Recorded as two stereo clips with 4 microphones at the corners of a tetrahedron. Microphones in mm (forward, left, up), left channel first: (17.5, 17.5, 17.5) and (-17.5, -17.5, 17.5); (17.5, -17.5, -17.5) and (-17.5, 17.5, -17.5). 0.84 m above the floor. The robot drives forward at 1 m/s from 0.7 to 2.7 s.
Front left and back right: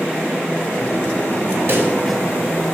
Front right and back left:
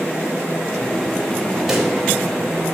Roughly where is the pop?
Behind right.